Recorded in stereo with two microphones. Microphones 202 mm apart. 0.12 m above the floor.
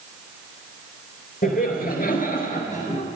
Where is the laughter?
50° left (ahead or behind), 1.8 m; by 3.0 s 35° left (ahead or behind), 1.6 m.